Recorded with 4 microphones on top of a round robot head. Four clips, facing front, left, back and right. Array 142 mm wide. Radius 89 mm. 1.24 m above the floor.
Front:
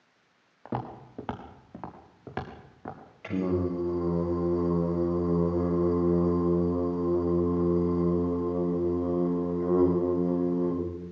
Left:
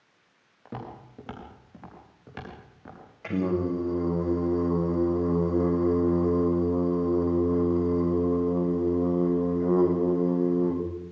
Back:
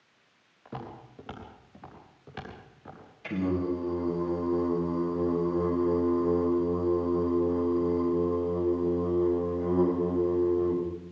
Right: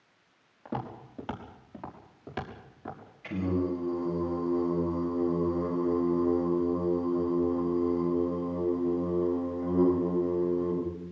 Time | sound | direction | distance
0.7 | footsteps | 10° right | 5.5 m
3.2 | singing | 60° left | 7.5 m